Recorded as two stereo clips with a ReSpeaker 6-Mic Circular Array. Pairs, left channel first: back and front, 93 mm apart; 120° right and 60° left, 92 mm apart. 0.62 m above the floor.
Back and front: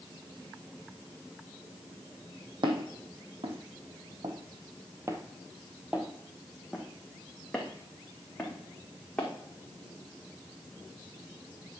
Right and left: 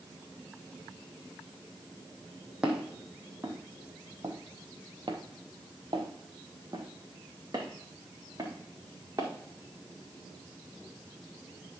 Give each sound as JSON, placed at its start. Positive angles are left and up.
{"t": 2.6, "sound": "footsteps", "azimuth_deg": -20, "distance_m": 1.6}